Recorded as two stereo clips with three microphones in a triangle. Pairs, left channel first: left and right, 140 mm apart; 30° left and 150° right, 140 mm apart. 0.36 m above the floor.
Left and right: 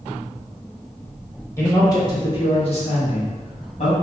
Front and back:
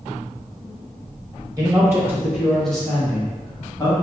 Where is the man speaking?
155° left, 1.2 m; by 3.9 s 90° left, 1.5 m.